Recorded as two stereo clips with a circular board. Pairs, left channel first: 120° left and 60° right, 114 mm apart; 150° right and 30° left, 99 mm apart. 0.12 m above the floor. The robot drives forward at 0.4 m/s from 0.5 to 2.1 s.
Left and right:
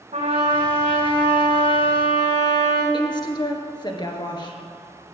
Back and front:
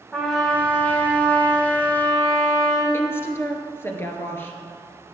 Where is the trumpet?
65° right, 4.5 m; by 2.8 s 70° right, 4.5 m.